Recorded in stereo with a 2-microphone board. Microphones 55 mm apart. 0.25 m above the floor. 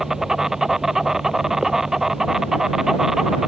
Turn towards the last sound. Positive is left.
turn(degrees=-10)  # may be behind; listen again after turning